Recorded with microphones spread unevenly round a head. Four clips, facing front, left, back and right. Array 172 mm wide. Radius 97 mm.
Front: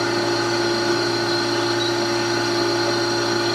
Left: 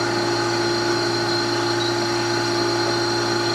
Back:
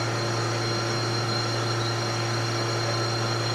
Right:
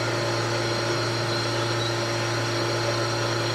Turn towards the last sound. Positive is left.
turn(degrees=40)